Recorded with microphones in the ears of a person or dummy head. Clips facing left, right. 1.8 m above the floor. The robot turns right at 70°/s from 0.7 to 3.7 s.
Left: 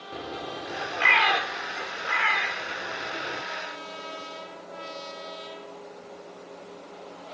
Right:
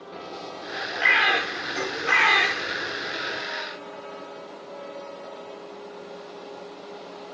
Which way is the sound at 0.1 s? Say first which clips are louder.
Left 2 dB; 10° left (ahead or behind).